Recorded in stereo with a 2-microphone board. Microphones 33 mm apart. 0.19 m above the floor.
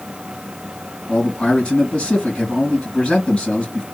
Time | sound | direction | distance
1.1 | a man speaking | 35° left (ahead or behind) | 2 m